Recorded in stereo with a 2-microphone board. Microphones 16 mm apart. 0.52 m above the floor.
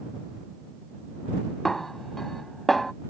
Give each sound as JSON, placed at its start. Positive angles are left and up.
{"t": 1.6, "sound": "a snare drum", "side_deg": 15}